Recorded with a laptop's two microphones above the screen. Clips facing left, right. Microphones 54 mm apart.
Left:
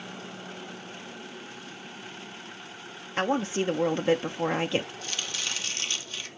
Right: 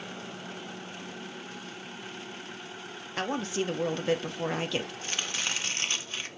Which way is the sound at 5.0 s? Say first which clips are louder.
Right 1 dB; 30° right (ahead or behind).